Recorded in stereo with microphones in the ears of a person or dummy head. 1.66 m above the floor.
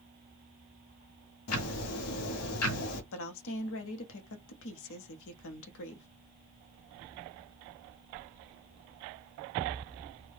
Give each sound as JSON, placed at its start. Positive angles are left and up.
{"t": 1.5, "sound": "ticking", "side_deg": 80, "distance_m": 1.0}
{"t": 3.1, "sound": "a woman speaking", "side_deg": 65, "distance_m": 0.9}